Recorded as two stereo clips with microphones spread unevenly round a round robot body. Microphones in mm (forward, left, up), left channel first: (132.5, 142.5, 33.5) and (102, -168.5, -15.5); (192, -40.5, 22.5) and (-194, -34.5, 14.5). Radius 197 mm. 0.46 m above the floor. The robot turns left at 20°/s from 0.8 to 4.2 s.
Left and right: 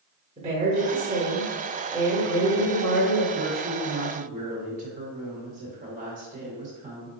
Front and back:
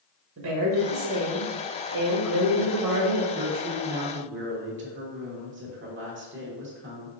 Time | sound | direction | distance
0.4 | a woman speaking | 150° right | 0.9 m
3.3 | a woman speaking | 120° right | 1.1 m